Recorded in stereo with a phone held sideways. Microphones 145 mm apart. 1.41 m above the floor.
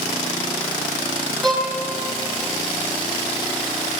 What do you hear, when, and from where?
1.4 s a violin: 5° left (ahead or behind), 3 m